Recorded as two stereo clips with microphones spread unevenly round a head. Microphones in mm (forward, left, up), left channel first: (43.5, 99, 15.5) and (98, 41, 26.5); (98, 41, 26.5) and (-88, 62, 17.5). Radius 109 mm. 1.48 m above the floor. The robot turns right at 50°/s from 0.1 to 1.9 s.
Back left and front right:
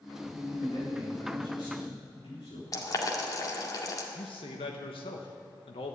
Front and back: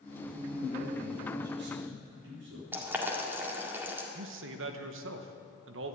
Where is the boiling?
95° left, 1.9 m.